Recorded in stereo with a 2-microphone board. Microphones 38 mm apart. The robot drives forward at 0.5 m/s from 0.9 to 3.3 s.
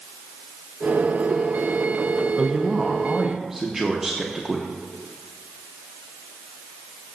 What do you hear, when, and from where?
2.4 s a woman speaking: 10° right (ahead or behind), 0.7 m; by 4.7 s 5° right (ahead or behind), 1.0 m